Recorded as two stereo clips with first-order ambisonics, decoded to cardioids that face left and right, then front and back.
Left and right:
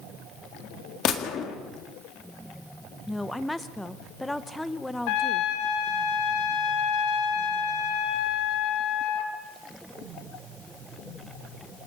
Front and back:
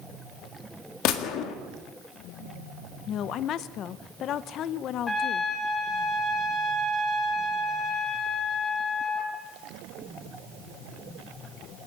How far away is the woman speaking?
About 0.6 m.